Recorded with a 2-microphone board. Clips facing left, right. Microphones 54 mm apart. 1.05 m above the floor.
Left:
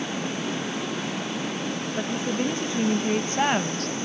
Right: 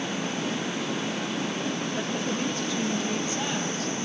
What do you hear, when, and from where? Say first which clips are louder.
2.0 s a woman speaking: left 2 dB; 10° left (ahead or behind), 1.4 m; by 4.0 s 55° left (ahead or behind), 1.1 m